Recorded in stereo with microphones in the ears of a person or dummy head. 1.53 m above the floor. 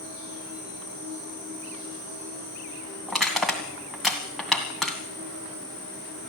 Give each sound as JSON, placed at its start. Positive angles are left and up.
{"t": 0.0, "sound": "an insect", "side_deg": -25, "distance_m": 9.0}
{"t": 3.1, "sound": "crushing", "side_deg": 0, "distance_m": 2.0}